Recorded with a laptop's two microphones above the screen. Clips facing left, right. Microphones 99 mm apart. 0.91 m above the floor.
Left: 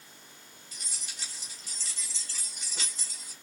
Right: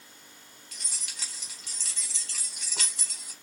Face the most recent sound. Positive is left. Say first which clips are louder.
# right 1 dB
turn(degrees=-70)  # may be behind; listen again after turning